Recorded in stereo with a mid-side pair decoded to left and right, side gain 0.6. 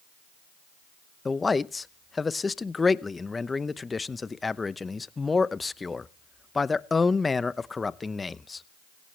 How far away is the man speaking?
About 0.8 m.